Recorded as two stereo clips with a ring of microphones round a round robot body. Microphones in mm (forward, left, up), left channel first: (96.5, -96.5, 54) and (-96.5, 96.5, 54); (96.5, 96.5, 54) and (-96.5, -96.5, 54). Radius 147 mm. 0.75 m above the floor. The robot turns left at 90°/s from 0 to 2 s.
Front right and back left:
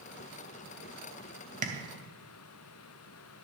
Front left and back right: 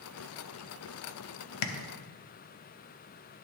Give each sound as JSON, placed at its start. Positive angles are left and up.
{"t": 1.6, "sound": "tapping", "azimuth_deg": 70, "distance_m": 1.0}